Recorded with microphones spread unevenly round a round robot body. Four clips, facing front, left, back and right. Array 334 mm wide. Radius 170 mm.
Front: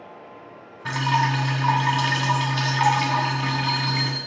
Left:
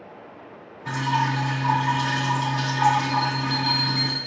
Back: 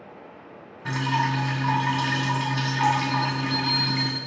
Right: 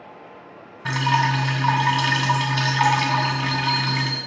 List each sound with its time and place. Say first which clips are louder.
0.8 s dripping: right 3 dB, front 3 dB; 70° right, 3 m
3.1 s a bell: right 1 dB, front 2 dB; 170° left, 0.8 m